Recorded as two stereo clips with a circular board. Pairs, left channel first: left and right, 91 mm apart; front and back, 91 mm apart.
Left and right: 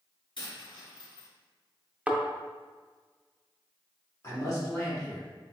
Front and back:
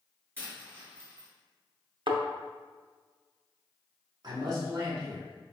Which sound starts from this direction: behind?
A thud, at 2.1 s.